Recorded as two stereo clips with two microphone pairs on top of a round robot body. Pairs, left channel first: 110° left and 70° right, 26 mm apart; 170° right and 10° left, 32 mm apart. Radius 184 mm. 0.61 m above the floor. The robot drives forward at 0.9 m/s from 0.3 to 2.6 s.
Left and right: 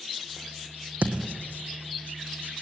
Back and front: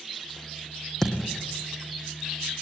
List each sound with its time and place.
1.0 s a thud: 90° right, 2 m; by 1.4 s 100° right, 2 m